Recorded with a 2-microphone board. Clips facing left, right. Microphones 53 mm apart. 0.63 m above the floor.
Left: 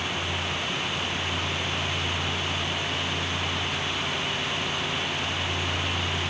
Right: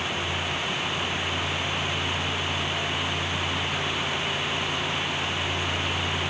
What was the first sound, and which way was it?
Only background noise.